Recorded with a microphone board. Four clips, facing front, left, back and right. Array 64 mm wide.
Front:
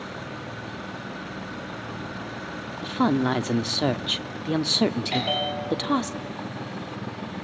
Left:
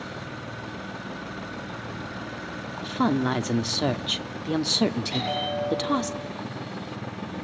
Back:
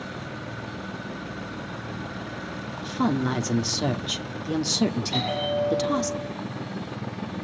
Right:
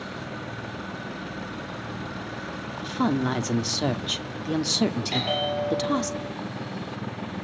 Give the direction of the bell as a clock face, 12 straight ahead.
1 o'clock.